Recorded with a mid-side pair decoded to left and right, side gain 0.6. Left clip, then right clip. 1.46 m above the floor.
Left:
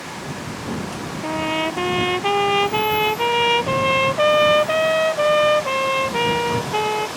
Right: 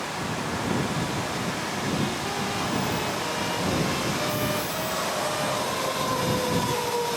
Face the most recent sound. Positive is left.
turn(degrees=65)